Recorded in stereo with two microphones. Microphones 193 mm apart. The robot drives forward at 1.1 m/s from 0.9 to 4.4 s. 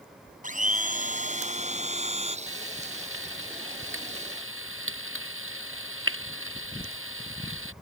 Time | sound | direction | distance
0.4 | a blender | 40° right (ahead or behind) | ?
2.5 | frying | 85° right | ?